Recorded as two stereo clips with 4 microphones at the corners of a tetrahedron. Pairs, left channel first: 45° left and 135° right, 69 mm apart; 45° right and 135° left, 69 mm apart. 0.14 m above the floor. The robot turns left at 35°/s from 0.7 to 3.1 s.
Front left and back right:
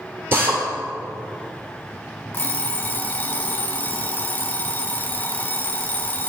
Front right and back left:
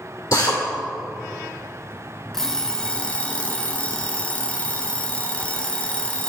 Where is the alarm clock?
35° left, 0.9 m; by 6.3 s 10° left, 0.9 m.